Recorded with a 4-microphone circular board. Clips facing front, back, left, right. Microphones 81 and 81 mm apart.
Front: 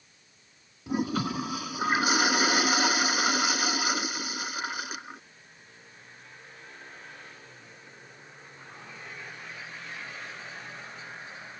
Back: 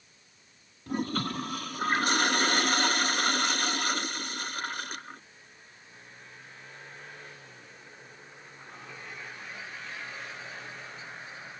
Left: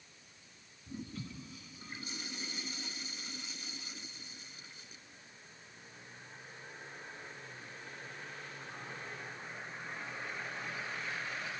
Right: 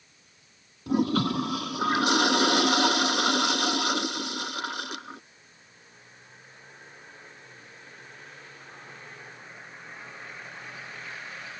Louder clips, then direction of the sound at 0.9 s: Front 3 dB, right 21 dB; 85° right.